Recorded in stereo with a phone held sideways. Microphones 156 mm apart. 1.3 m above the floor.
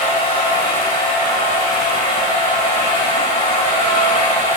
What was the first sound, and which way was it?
A machine running, 60° left (ahead or behind).